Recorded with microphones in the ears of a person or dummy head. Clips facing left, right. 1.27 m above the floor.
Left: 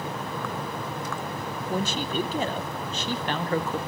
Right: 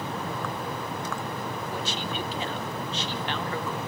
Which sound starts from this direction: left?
A man speaking, at 1.7 s.